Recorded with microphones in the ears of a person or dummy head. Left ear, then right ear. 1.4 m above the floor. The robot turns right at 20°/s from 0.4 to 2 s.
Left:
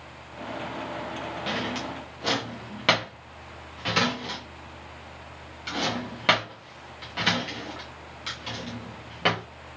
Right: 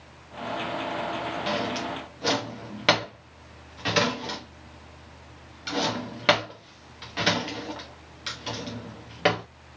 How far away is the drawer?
About 0.8 m.